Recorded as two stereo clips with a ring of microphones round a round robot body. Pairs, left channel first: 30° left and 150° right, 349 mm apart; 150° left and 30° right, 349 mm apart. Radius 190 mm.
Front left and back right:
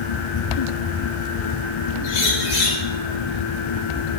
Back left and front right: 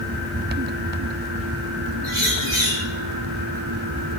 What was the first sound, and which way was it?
A bird, 50° left.